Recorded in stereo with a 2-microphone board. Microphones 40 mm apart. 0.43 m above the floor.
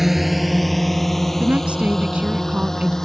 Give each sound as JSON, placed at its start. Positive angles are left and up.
{"t": 0.0, "sound": "a drone", "side_deg": -5}
{"t": 1.4, "sound": "a woman speaking", "side_deg": -30}